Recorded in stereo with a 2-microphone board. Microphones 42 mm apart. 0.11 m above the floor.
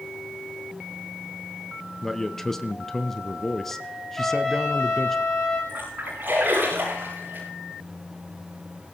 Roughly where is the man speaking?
Centre.